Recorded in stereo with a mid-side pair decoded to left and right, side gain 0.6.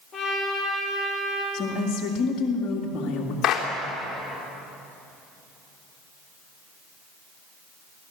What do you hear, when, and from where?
0.1 s a trumpet: 35° left, 7 m
1.5 s a woman speaking: 50° left, 2.5 m
3.4 s a clap: 50° left, 3.5 m